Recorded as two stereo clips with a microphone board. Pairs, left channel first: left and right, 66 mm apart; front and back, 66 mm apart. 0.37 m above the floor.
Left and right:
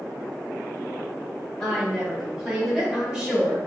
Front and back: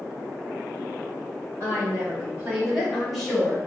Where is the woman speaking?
170° left, 1.5 m; by 3.6 s 55° right, 1.3 m.